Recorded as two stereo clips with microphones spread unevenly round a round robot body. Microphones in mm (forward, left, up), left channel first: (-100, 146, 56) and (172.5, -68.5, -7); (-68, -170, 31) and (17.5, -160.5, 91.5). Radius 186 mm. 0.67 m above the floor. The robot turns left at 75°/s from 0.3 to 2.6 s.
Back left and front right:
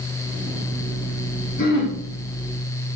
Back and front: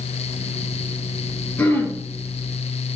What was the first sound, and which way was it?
Throat clearing, 145° right.